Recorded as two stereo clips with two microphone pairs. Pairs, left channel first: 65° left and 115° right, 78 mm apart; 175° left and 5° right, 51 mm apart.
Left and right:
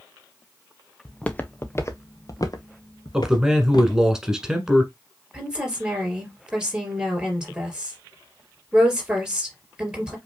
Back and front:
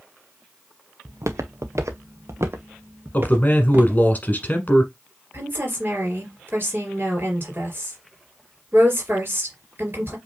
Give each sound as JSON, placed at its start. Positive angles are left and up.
{"t": 1.1, "sound": "footsteps", "azimuth_deg": -15, "distance_m": 0.8}
{"t": 3.1, "sound": "a man speaking", "azimuth_deg": 165, "distance_m": 1.3}
{"t": 5.3, "sound": "a woman speaking", "azimuth_deg": -40, "distance_m": 3.0}